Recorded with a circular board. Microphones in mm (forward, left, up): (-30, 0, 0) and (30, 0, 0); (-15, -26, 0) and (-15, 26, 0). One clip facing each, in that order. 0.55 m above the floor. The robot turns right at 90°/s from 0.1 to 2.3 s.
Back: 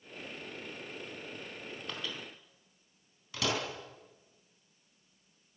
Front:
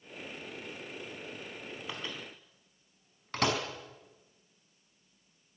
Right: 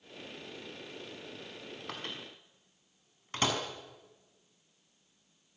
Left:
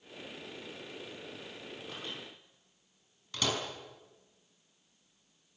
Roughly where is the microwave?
Right.